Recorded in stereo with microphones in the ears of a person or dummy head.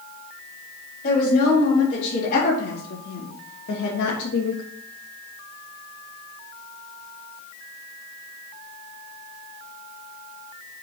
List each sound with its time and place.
1.0 s a woman speaking: 40° left (ahead or behind), 3 m; by 4.6 s 70° left (ahead or behind), 1.0 m